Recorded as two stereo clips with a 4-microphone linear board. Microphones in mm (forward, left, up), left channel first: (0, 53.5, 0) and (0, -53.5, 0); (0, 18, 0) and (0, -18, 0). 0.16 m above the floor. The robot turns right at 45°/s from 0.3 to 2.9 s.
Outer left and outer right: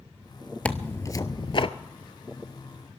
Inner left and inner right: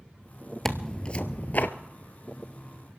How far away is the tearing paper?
About 0.6 m.